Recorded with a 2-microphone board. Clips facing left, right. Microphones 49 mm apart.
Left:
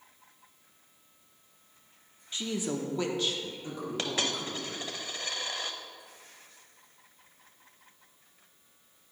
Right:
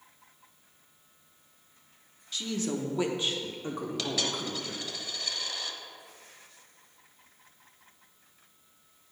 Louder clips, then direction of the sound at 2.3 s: Right 1 dB; 30° left (ahead or behind).